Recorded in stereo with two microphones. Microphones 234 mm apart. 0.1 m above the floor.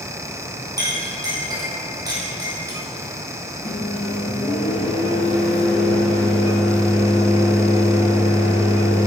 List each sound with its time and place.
0.8 s a clink: 15° right (ahead or behind), 2.5 m
3.6 s a microwave: 30° left (ahead or behind), 1.5 m